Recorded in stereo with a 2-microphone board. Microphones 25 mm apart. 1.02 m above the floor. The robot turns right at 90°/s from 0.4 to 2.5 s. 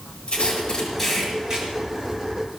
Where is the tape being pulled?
60° left (ahead or behind), 8 m; by 2.6 s 50° right (ahead or behind), 8 m.